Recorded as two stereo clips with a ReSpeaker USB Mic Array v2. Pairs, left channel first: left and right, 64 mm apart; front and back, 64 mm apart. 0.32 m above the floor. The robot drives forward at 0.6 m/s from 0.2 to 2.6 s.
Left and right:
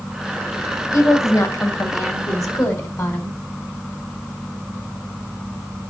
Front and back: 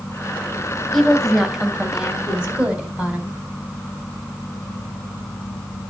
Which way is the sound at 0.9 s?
85° left.